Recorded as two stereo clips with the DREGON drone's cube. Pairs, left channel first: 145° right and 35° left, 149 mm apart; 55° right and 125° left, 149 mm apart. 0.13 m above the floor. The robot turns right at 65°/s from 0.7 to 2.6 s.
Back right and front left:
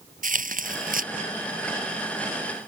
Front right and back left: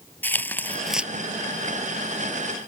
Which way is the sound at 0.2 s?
20° left.